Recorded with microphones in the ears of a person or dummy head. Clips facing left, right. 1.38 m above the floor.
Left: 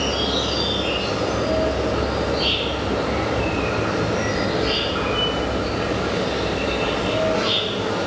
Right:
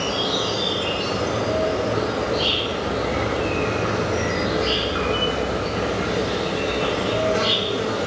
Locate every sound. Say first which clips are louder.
0.0 s an insect: left 1 dB; 50° right (ahead or behind), 1.7 m